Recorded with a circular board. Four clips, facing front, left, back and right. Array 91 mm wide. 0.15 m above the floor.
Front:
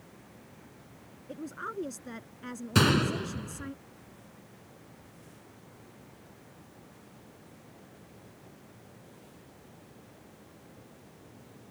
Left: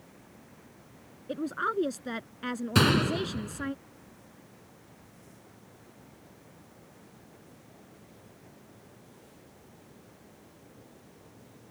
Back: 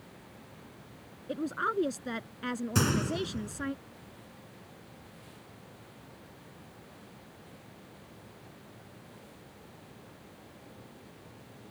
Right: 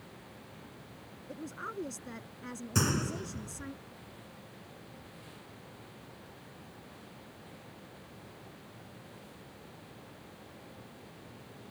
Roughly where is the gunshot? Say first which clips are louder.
Left 8 dB, front 5 dB; ahead left.